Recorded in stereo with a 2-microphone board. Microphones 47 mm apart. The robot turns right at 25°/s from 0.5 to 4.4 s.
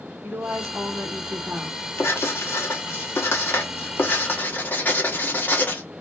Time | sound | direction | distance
0.2 | a woman speaking | 75° right | 1.5 m
2.0 | writing | 75° left | 1.1 m